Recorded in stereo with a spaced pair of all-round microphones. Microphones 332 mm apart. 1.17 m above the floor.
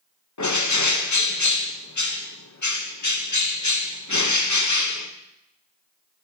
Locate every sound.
0.4 s a bird: 60° left (ahead or behind), 0.8 m